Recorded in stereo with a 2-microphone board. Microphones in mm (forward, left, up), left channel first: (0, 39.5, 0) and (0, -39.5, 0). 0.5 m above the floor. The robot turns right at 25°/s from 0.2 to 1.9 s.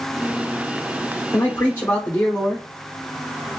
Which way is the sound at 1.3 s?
40° left (ahead or behind).